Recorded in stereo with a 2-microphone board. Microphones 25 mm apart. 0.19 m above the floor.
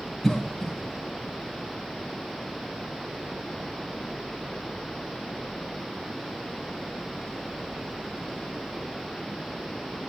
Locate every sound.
0.2 s a cough: 10° left (ahead or behind), 1.0 m